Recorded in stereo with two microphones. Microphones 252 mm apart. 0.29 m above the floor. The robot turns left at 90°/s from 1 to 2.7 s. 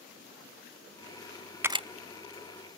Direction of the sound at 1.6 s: 10° right (ahead or behind).